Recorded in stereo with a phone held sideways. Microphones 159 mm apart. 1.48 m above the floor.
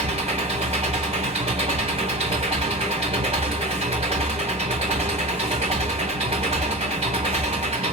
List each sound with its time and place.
0.0 s an engine running: 40° right (ahead or behind), 2.0 m